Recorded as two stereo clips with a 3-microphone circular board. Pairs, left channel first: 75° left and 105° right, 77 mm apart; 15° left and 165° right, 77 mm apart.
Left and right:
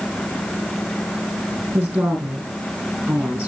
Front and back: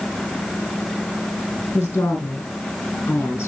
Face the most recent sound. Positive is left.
turn(degrees=-45)